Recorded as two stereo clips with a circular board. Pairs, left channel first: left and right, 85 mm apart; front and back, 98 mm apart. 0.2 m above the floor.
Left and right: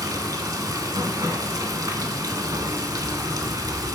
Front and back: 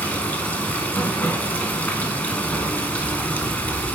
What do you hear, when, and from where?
0.0 s running water: 70° right, 0.9 m